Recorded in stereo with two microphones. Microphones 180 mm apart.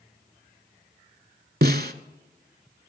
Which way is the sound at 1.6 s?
65° right (ahead or behind).